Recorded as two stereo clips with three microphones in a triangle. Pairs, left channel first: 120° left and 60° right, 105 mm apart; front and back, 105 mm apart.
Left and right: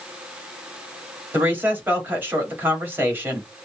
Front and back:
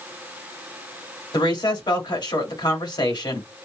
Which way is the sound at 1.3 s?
Straight ahead.